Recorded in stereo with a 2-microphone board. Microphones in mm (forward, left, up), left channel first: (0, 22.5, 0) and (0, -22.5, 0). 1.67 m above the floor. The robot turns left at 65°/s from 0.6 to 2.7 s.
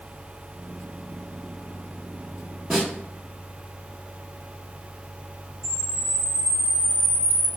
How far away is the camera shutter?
About 1.4 m.